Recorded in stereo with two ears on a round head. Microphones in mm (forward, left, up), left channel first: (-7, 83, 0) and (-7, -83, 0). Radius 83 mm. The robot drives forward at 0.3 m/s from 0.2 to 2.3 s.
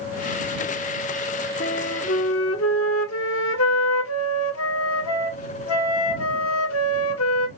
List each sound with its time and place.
1.6 s a flute: 75° left (ahead or behind), 0.8 m; by 7.5 s 90° left, 0.7 m